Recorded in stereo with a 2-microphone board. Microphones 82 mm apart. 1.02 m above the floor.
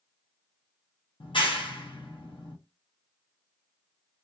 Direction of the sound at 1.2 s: 70° left (ahead or behind).